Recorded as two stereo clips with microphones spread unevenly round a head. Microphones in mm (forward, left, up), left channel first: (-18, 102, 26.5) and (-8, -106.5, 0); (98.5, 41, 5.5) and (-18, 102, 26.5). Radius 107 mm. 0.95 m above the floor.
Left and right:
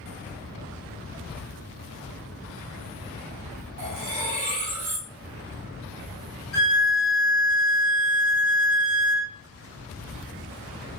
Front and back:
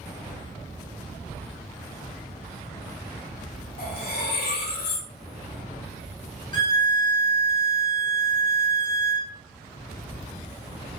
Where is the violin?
30° left, 0.7 m.